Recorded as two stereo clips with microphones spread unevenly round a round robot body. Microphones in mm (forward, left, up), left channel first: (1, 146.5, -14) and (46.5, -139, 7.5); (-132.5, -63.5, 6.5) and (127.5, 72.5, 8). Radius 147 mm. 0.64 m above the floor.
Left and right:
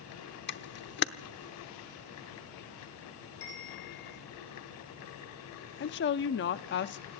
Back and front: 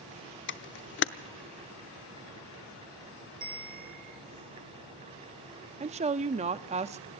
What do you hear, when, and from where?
0.5 s a camera shutter: 155° left, 0.7 m
3.4 s a bell: 90° left, 3 m
5.8 s a woman speaking: 85° left, 0.6 m